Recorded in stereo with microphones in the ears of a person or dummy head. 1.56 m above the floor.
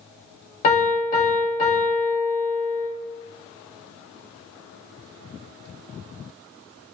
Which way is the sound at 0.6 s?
40° left (ahead or behind).